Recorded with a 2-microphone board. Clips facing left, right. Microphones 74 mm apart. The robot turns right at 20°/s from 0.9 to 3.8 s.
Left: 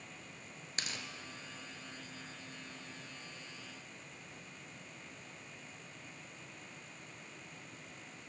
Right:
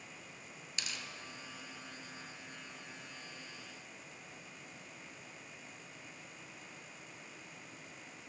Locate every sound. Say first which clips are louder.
0.8 s tearing paper: left 2 dB; 45° left (ahead or behind), 0.6 m; by 1.1 s 40° left (ahead or behind), 0.6 m